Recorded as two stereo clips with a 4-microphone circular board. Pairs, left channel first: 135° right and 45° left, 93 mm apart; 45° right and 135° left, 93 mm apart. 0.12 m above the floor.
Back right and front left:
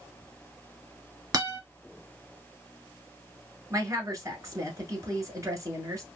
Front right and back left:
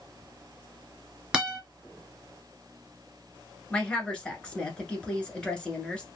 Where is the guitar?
60° left, 1.8 m.